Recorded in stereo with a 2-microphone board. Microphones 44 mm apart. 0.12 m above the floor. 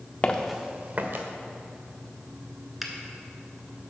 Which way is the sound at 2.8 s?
Centre (ahead or behind).